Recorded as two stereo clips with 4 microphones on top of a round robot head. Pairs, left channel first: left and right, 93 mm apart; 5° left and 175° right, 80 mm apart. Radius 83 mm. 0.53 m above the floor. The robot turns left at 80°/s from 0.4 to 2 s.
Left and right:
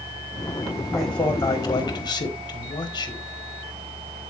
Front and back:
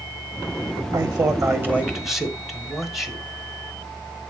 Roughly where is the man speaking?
Behind.